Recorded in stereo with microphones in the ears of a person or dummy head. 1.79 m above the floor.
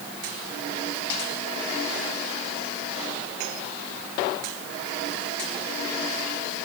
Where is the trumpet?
I don't hear a trumpet.